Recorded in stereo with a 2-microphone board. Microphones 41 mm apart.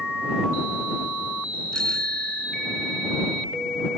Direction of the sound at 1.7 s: 15° left (ahead or behind).